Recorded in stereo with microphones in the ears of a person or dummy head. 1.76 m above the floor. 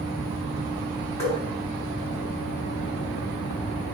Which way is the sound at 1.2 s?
20° left (ahead or behind).